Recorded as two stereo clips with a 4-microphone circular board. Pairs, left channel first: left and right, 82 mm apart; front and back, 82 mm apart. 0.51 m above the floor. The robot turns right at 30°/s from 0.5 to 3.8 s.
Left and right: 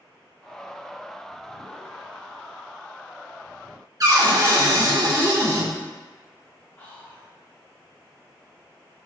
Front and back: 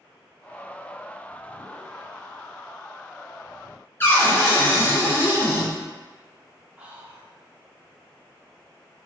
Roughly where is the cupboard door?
Ahead right.